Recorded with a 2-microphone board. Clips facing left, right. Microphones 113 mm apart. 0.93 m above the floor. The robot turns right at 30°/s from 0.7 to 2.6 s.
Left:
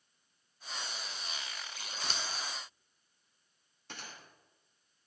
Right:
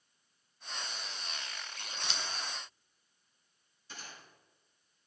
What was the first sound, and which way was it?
Scissors, 40° left (ahead or behind).